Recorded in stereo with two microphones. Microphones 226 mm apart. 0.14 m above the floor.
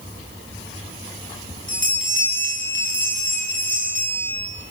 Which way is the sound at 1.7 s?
60° left (ahead or behind).